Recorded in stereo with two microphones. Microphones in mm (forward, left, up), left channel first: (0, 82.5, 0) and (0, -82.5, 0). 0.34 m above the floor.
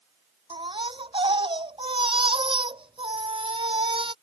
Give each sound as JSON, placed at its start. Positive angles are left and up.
{"t": 0.5, "sound": "a baby crying", "side_deg": -30}